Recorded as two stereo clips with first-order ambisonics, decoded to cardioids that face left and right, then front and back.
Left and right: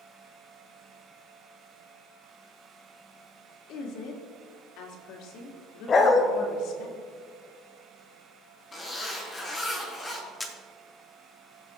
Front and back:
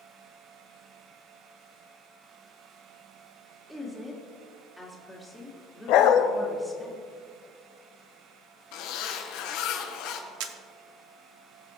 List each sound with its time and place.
3.7 s a woman speaking: 90° left, 2 m
5.9 s a dog barking: 25° left, 0.8 m
8.7 s a zipper: 10° left, 2 m
10.4 s a camera shutter: 175° left, 0.8 m